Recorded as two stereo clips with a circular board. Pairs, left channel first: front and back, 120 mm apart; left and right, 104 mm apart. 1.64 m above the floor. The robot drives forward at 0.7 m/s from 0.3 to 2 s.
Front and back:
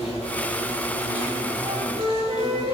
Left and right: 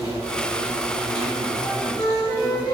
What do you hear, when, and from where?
0.0 s an insect: 35° right, 4 m; by 2.8 s 45° right, 3.5 m
1.6 s a flute: 160° left, 2.5 m